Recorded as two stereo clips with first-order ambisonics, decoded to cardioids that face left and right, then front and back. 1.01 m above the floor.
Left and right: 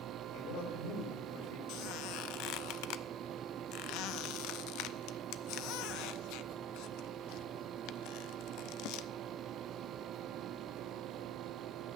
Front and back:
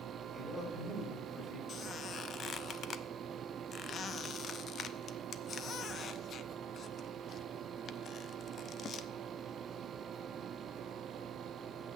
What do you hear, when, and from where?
0.3 s a man speaking: 80° left, 5.5 m
1.7 s a squeak: 65° left, 0.6 m